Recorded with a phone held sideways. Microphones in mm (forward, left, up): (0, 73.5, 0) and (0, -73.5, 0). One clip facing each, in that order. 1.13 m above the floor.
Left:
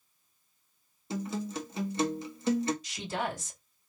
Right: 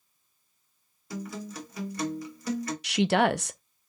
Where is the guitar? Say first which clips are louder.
Left 3 dB; 25° left (ahead or behind), 1.3 m.